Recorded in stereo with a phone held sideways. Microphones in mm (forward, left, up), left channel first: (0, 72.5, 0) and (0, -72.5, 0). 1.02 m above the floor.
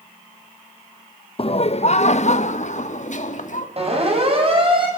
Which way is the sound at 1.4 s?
40° left (ahead or behind).